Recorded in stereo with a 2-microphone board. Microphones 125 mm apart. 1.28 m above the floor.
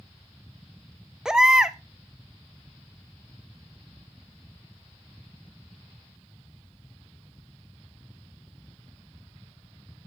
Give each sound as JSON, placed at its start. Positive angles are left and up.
{"t": 1.2, "sound": "a baby crying", "side_deg": -5, "distance_m": 0.6}